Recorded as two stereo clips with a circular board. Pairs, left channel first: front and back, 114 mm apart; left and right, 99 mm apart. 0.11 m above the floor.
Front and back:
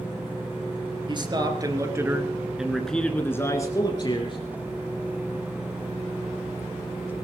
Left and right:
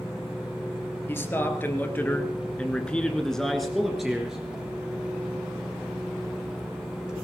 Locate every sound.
1.1 s a man speaking: 150° left, 2.5 m; by 4.4 s 10° right, 2.5 m